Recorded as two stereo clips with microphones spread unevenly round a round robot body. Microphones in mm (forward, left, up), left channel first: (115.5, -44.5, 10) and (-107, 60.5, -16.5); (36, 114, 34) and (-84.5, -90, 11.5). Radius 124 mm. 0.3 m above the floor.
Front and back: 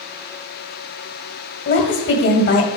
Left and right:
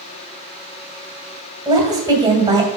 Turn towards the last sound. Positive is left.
turn(degrees=-60)